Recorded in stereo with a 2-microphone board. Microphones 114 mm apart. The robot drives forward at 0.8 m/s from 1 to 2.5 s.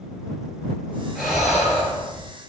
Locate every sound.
1.1 s breathing: 5° right (ahead or behind), 0.6 m; by 2.3 s centre (ahead or behind), 1.5 m